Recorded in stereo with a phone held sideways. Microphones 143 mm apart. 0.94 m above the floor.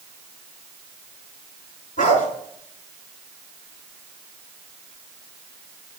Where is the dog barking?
70° left (ahead or behind), 5.5 m.